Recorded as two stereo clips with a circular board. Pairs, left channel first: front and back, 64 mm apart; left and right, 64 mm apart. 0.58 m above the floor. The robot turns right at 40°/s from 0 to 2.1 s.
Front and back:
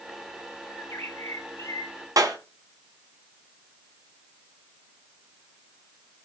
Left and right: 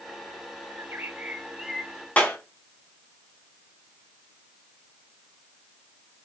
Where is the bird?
45° right, 2 m; by 2.1 s 10° left, 2 m.